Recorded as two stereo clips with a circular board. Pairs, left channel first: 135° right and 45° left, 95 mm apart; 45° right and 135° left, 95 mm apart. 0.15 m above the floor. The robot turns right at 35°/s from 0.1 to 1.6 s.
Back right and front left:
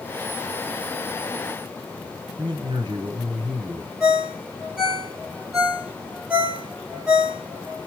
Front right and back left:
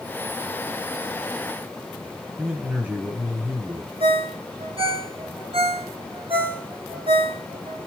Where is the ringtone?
125° left, 4 m.